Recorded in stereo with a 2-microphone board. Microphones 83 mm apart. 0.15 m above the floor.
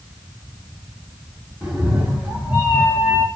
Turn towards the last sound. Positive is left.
turn(degrees=-20)  # may be behind; listen again after turning